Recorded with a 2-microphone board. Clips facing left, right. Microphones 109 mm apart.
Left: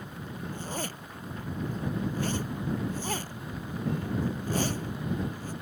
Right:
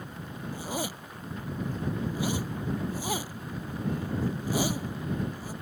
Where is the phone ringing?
I don't hear a phone ringing.